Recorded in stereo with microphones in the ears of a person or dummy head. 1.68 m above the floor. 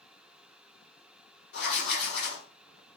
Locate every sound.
1.5 s writing: 65° left (ahead or behind), 1.3 m